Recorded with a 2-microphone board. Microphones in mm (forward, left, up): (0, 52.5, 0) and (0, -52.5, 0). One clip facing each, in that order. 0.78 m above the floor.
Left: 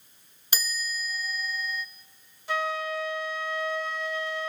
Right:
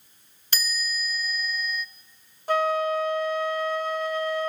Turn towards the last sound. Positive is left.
turn(degrees=-50)  # may be behind; listen again after turning